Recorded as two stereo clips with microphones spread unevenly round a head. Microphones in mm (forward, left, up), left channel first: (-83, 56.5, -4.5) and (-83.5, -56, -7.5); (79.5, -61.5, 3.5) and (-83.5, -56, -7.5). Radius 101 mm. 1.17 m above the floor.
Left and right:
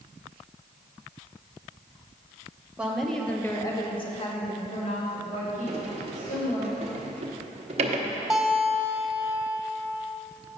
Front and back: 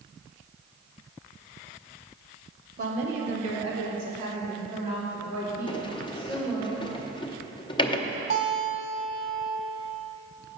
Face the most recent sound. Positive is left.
turn(degrees=-175)